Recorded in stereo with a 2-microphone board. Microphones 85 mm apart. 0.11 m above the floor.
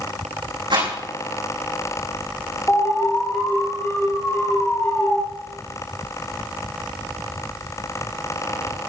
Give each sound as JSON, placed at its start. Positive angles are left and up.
{"t": 0.7, "sound": "a rattle", "side_deg": -75, "distance_m": 6.5}
{"t": 2.7, "sound": "an alarm", "side_deg": 25, "distance_m": 4.5}